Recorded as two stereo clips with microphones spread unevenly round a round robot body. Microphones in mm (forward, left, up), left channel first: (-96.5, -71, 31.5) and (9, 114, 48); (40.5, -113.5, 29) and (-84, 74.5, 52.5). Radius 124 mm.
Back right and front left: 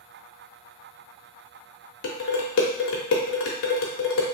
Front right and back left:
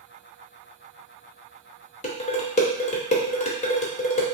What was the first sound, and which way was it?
Dishes clattering, 110° right.